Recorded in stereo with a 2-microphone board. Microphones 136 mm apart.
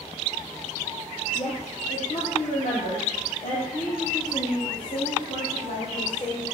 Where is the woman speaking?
65° left (ahead or behind), 2.5 m; by 6.5 s 75° left (ahead or behind), 5.5 m.